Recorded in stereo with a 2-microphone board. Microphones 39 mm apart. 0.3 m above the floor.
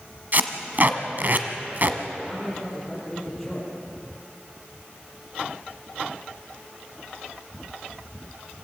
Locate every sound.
0.3 s tape being pulled: 45° right (ahead or behind), 1.3 m
2.2 s a man speaking: 5° left (ahead or behind), 9 m